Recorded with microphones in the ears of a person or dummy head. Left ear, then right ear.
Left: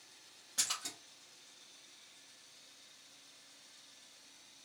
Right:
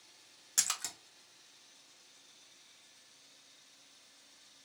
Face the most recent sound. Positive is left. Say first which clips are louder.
# right 3 dB
turn(degrees=-55)  # may be behind; listen again after turning